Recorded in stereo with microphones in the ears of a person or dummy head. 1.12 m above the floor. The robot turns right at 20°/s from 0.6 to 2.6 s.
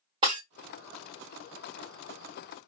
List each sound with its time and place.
0.2 s breaking glass: 25° right (ahead or behind), 1.2 m